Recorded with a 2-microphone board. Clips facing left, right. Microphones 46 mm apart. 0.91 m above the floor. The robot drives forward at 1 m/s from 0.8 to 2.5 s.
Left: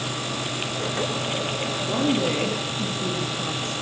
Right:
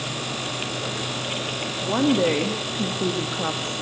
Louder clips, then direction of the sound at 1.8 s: Right 4 dB; 25° right (ahead or behind).